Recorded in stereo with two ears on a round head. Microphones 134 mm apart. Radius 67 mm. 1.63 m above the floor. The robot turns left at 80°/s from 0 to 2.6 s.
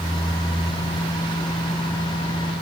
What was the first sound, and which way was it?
Only background noise.